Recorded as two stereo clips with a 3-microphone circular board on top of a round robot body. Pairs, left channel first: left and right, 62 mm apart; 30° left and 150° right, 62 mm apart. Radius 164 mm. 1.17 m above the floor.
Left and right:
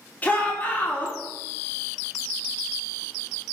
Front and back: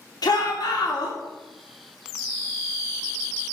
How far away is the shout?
About 3 m.